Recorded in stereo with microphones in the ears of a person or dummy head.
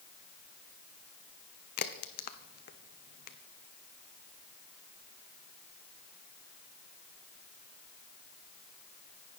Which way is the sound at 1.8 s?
55° left (ahead or behind).